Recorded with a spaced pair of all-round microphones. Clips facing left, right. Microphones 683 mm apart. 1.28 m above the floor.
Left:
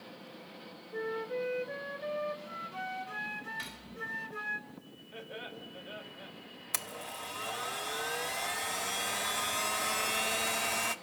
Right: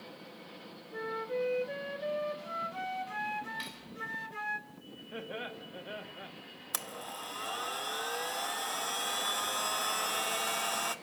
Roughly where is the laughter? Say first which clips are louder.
Right 4 dB; right.